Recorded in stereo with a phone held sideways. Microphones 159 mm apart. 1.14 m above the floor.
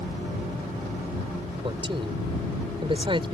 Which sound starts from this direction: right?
A man speaking, at 1.6 s.